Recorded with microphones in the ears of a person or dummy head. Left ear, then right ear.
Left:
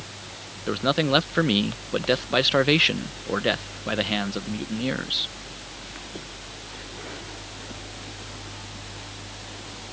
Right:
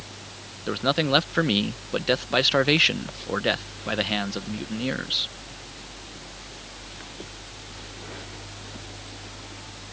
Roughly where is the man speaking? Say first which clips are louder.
Even; centre.